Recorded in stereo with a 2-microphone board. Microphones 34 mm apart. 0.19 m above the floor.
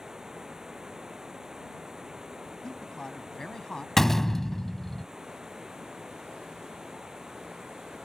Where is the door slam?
10° left (ahead or behind).